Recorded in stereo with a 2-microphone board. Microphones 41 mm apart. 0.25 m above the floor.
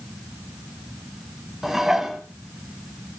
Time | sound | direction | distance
1.6 | dishes clattering | 10° right (ahead or behind) | 1.3 m